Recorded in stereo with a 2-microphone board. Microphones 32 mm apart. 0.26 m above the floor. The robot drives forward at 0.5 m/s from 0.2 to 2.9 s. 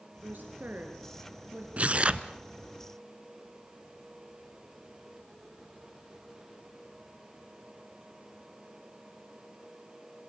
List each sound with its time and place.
0.2 s a woman speaking: 75° right (ahead or behind), 4.5 m; by 1.7 s 70° right (ahead or behind), 4.5 m
1.8 s tearing paper: 50° right (ahead or behind), 0.8 m; by 2.3 s 35° right (ahead or behind), 1.0 m